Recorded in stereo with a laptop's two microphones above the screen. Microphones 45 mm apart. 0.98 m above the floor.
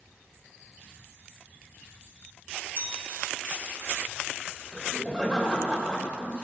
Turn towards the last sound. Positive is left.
turn(degrees=10)  # may be behind; listen again after turning